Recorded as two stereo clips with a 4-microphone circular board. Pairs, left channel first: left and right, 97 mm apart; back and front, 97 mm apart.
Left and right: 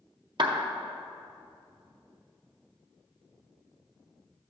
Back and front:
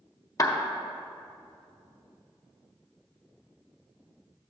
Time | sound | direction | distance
0.4 | a clap | 125° right | 0.6 m